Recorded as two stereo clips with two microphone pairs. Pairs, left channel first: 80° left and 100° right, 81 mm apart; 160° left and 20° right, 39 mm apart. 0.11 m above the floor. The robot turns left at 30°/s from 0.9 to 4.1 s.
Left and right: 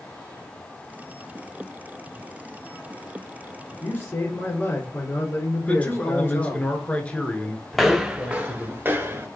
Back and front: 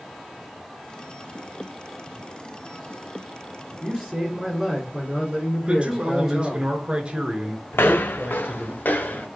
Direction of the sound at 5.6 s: 15° left.